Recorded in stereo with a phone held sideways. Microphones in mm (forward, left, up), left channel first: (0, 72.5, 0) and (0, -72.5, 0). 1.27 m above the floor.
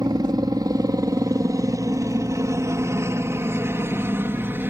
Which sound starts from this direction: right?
A helicopter, at 0.0 s.